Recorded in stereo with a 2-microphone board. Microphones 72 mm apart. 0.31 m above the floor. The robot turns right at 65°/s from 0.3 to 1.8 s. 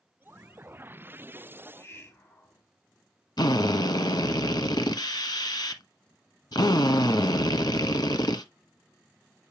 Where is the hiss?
20° left (ahead or behind), 2.5 m; by 2.6 s 35° left (ahead or behind), 2.5 m.